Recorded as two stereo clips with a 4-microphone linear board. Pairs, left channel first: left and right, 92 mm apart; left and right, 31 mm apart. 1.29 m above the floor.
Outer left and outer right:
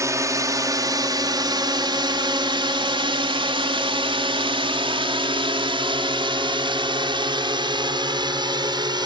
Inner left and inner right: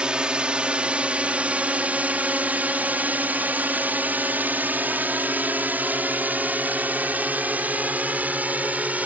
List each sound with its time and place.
0.0 s a drone: 35° right (ahead or behind); by 9.1 s 55° right (ahead or behind)